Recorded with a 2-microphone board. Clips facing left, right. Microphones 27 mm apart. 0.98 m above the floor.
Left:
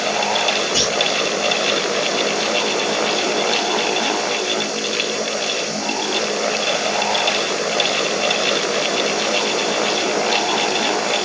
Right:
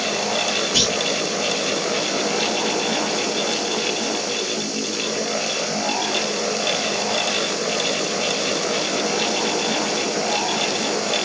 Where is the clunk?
30° right (ahead or behind), 2 m.